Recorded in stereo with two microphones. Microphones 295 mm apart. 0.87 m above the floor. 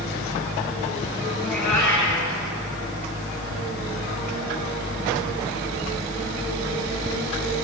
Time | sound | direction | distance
1.4 | a cat meowing | 80° left | 5.5 m